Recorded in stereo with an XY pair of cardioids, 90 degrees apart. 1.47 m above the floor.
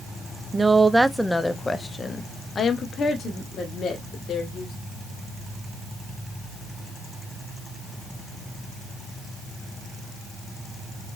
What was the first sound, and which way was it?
A woman speaking, 30° right.